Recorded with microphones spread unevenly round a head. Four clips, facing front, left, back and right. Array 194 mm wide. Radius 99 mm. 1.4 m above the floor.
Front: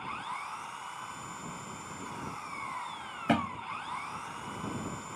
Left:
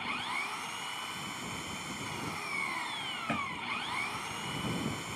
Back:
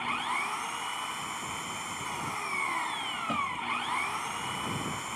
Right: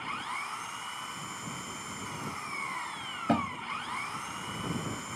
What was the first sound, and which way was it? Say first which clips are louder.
An engine running: right 1 dB, back 6 dB; 175° left.